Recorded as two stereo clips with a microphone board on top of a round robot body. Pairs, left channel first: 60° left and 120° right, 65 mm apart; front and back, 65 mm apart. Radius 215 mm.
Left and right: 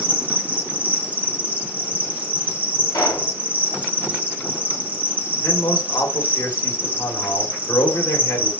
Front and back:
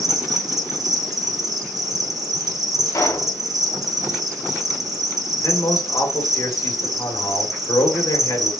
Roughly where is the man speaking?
Ahead.